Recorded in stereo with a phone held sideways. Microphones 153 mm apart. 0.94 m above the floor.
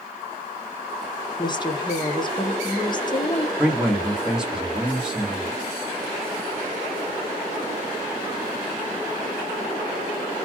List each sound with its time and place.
1.4 s a woman speaking: 30° left (ahead or behind), 0.8 m
3.6 s a man speaking: 5° right (ahead or behind), 1.3 m